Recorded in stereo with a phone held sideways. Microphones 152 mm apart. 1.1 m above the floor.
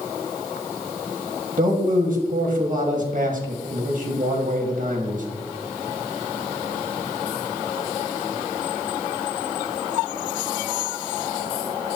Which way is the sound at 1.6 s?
60° right (ahead or behind).